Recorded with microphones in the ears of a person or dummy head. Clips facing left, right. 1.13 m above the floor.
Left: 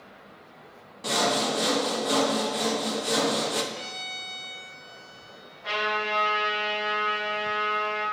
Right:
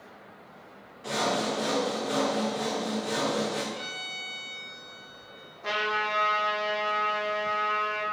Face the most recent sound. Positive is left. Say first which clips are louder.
# left 1 dB
turn(degrees=-45)  # may be behind; listen again after turning